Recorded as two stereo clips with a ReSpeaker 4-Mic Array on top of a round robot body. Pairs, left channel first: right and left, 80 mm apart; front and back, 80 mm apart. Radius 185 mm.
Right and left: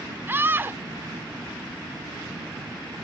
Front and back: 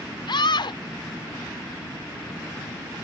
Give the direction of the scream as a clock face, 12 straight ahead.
11 o'clock.